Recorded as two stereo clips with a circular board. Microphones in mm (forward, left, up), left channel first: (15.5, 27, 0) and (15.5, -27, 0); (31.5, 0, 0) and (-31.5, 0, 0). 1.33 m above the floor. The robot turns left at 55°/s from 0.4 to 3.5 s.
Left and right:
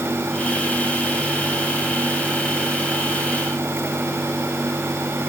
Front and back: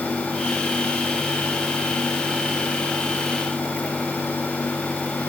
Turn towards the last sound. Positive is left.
No sound to turn to.